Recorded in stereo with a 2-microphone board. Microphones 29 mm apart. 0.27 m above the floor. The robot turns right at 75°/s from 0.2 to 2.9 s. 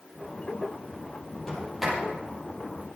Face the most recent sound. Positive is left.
turn(degrees=-80)